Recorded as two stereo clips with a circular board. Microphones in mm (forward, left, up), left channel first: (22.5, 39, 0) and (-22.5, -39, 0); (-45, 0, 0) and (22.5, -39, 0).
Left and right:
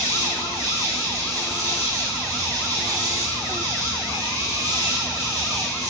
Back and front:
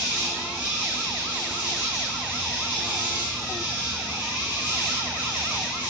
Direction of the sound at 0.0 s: 95° right.